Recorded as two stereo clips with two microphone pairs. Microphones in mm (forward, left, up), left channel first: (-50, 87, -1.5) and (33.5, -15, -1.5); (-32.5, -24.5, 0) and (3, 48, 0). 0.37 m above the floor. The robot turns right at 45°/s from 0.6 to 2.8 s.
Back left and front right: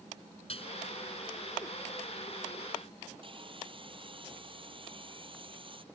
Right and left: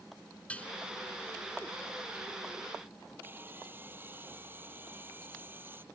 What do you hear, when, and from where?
0.5 s dishes clattering: 170° left; by 0.7 s 175° left
3.2 s sawing: straight ahead